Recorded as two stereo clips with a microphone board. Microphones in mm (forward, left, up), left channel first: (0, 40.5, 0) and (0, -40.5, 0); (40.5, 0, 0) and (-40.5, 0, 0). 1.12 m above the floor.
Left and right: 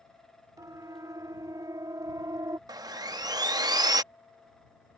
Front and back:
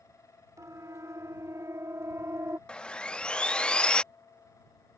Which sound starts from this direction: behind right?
A siren, at 0.6 s.